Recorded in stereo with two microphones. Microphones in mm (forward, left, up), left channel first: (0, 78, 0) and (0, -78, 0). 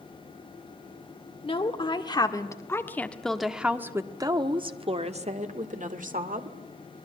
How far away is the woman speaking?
About 1.8 m.